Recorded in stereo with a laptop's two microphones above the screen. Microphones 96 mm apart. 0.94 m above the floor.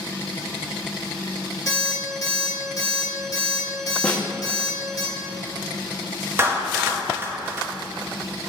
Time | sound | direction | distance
1.7 | an alarm clock | 40° left (ahead or behind) | 1.6 m
4.0 | a snare drum | 15° left (ahead or behind) | 0.7 m
6.4 | a clap | 25° right (ahead or behind) | 0.9 m